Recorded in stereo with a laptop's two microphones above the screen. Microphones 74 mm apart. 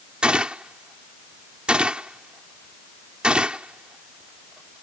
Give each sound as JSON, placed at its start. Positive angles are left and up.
{"t": 0.2, "sound": "a gunshot", "side_deg": -15}